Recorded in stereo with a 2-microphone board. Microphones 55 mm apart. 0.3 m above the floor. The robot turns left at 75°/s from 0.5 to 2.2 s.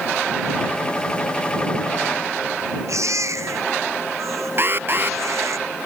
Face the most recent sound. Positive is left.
turn(degrees=-45)  # may be behind; listen again after turning